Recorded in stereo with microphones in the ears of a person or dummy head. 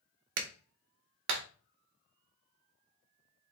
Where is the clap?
70° right (ahead or behind), 0.8 m.